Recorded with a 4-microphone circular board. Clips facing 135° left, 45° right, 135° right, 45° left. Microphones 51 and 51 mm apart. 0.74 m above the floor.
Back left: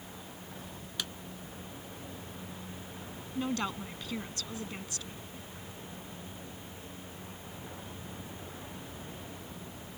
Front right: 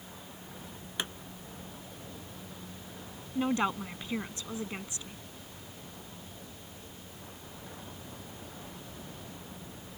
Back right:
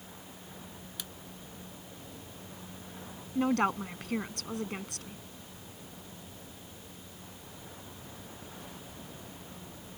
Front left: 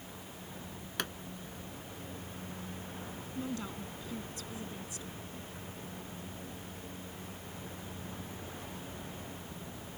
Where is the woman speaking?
115° right.